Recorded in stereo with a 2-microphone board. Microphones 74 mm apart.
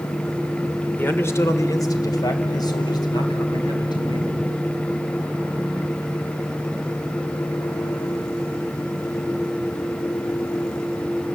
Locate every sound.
1.0 s a man speaking: 25° left (ahead or behind), 1.3 m; by 4.4 s 75° left (ahead or behind), 4 m